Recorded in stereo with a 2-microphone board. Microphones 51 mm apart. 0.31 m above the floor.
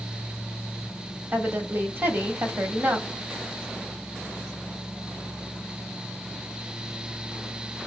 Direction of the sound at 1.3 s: 40° right (ahead or behind).